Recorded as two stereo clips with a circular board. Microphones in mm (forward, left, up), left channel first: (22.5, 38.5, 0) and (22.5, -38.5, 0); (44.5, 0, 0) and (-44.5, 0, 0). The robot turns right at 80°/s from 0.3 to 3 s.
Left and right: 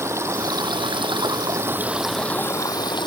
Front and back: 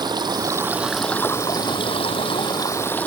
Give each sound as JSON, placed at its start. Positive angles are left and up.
{"t": 0.0, "sound": "running water", "azimuth_deg": -145}